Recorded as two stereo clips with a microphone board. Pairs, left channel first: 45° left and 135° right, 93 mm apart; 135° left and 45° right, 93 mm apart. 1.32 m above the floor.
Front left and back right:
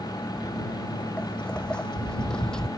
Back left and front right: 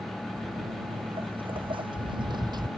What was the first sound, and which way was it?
Footsteps, 35° right.